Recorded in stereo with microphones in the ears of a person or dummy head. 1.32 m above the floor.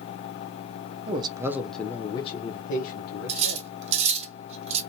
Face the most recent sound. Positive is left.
turn(degrees=-40)  # may be behind; listen again after turning